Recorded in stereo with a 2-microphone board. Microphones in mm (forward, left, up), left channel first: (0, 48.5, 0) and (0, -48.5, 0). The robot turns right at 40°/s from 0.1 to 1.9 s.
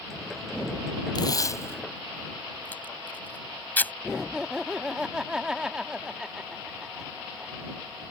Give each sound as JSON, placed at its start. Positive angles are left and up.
{"t": 1.1, "sound": "tape being pulled", "side_deg": 45}
{"t": 4.0, "sound": "laughter", "side_deg": -5}